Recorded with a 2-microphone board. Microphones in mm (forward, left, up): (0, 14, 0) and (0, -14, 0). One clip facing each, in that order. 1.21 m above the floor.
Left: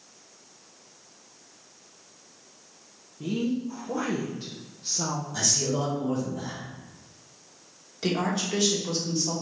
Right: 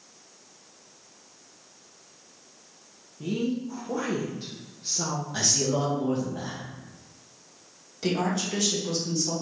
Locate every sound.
3.2 s a woman speaking: centre (ahead or behind), 0.8 m
5.3 s a man speaking: 35° right (ahead or behind), 1.6 m
8.0 s a woman speaking: 10° left (ahead or behind), 1.6 m